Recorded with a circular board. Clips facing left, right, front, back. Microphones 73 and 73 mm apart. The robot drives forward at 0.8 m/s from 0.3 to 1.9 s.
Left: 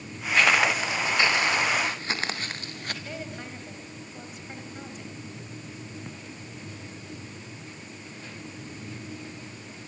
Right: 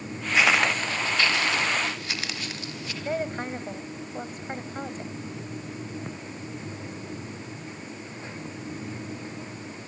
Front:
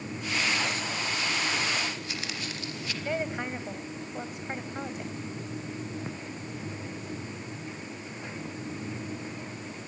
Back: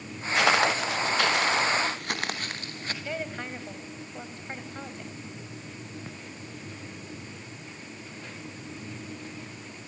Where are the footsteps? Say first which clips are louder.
Even, back 8 dB; 170° right, 1.6 m; by 2.9 s 130° left, 3.5 m.